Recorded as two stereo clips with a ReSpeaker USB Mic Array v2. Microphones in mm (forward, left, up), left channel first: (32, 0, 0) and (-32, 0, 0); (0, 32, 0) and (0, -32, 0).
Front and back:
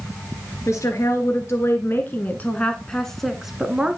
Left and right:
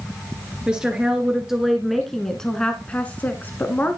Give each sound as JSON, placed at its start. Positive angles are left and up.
{"t": 0.7, "sound": "a woman speaking", "azimuth_deg": -15, "distance_m": 1.7}